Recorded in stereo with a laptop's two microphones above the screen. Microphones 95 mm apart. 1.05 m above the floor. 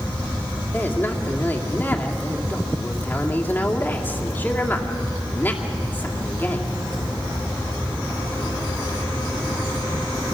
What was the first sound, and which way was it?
A man speaking, 20° left (ahead or behind).